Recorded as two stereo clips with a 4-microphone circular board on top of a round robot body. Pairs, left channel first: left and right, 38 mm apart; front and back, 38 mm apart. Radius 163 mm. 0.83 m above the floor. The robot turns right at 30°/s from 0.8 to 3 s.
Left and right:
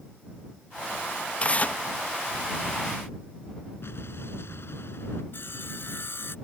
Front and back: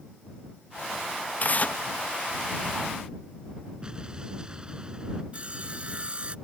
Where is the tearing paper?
40° left; by 1.8 s 50° left.